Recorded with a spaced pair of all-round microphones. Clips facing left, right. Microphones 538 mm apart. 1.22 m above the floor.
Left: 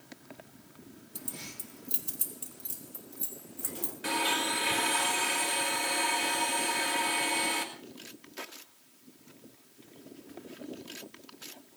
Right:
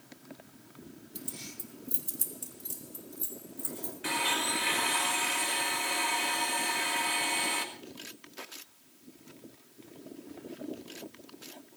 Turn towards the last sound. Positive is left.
turn(degrees=55)  # may be behind; listen again after turning